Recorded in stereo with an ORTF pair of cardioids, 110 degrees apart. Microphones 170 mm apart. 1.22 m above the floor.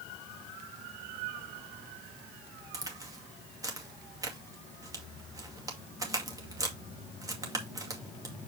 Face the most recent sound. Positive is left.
turn(degrees=-20)